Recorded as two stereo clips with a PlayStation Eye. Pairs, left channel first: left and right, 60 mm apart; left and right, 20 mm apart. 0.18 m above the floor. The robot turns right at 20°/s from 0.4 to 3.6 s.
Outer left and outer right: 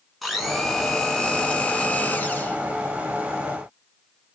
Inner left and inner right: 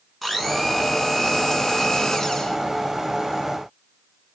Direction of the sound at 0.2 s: Straight ahead.